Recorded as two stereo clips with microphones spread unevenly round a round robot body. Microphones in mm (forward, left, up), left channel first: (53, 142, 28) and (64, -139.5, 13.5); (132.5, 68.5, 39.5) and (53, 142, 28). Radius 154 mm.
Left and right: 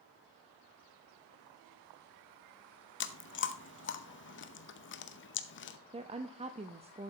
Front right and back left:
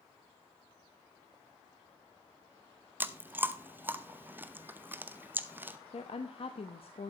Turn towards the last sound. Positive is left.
turn(degrees=-25)